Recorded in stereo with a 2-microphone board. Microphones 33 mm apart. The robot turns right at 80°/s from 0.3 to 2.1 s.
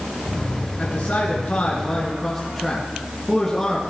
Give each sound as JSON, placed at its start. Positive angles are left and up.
{"t": 0.8, "sound": "a man speaking", "azimuth_deg": 60, "distance_m": 3.0}